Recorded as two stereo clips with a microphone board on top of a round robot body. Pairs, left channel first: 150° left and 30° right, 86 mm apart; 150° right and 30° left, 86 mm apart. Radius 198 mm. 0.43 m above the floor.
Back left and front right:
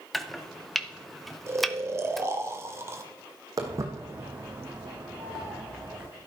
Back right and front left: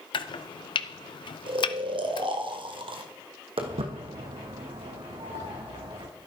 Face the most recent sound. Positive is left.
turn(degrees=55)